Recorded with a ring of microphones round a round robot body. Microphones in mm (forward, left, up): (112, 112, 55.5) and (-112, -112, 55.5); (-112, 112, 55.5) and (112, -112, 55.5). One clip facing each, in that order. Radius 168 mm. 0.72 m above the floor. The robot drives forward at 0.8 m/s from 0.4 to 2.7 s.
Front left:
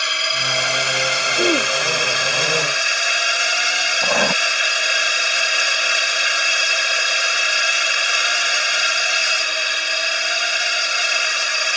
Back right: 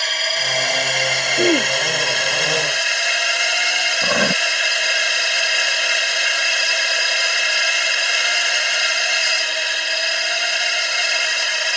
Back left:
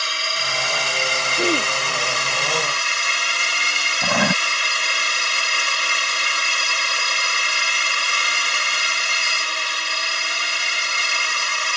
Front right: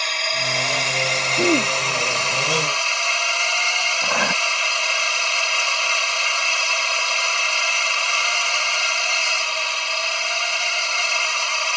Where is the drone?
105° left; by 11.8 s 125° left.